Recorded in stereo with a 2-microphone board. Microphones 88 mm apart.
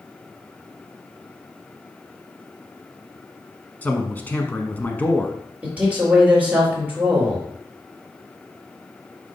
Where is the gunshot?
I don't hear a gunshot.